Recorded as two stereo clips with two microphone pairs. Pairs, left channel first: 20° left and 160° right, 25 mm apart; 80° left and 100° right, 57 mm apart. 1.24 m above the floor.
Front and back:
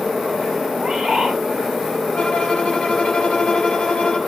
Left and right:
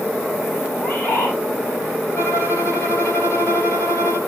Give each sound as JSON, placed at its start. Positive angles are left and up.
{"t": 0.7, "sound": "a bird", "azimuth_deg": 135, "distance_m": 7.0}
{"t": 2.1, "sound": "a violin", "azimuth_deg": 50, "distance_m": 2.5}